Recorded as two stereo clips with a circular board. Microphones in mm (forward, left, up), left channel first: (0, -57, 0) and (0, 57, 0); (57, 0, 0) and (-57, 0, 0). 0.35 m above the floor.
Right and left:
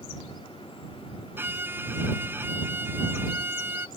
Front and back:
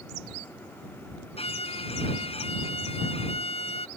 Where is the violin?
20° left.